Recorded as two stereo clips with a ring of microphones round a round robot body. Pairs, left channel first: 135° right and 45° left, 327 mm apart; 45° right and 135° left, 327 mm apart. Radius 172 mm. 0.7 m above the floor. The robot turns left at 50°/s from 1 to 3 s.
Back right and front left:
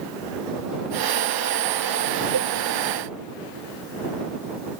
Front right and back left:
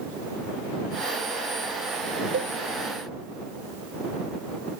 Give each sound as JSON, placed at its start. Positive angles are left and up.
{"t": 2.3, "sound": "a cowbell", "azimuth_deg": 80}